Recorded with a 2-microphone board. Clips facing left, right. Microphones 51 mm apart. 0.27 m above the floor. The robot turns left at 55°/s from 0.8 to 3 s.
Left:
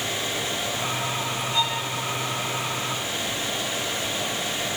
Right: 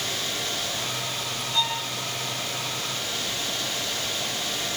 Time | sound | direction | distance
1.5 | a violin | 20° left (ahead or behind) | 5.5 m